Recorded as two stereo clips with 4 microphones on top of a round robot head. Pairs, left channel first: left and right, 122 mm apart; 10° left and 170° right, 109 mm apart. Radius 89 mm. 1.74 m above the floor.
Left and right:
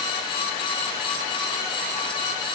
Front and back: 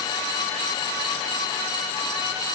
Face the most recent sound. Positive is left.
No sound to turn to.